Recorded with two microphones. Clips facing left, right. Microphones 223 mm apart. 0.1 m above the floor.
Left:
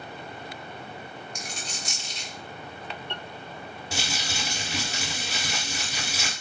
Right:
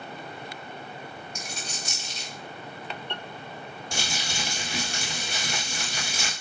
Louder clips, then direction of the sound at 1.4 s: Even; 25° right (ahead or behind).